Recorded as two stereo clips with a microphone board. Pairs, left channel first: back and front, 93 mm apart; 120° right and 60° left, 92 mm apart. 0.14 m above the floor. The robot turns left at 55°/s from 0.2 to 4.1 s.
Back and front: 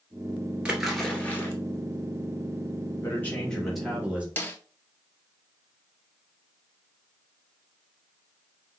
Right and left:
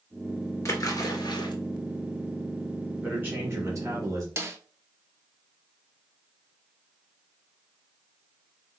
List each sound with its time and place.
0.7 s a splash: 75° right, 1.0 m; by 1.5 s 125° right, 1.0 m
3.0 s a man speaking: 130° left, 1.8 m; by 4.3 s 70° left, 1.8 m
4.4 s a snare drum: 115° left, 0.6 m